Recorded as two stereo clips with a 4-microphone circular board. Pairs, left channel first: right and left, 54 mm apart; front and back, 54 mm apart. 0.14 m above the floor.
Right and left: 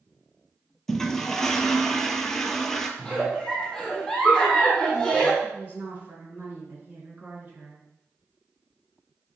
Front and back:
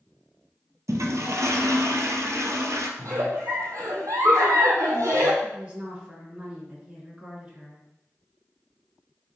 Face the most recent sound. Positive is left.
turn(degrees=120)